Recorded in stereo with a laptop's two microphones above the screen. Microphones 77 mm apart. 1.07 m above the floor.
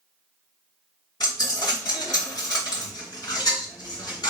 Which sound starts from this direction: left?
A dropped coin, at 1.2 s.